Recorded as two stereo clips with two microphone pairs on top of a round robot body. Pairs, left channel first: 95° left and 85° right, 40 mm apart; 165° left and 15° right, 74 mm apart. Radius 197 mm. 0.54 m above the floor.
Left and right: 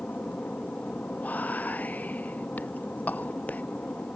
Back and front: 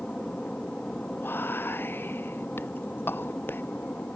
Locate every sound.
0.0 s an aircraft: 90° left; by 4.2 s 105° left
1.2 s whispering: 110° left